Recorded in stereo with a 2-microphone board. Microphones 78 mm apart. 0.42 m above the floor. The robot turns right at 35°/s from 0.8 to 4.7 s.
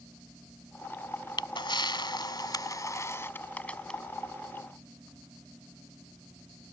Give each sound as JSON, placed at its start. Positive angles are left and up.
{"t": 1.4, "sound": "a camera shutter", "azimuth_deg": 80}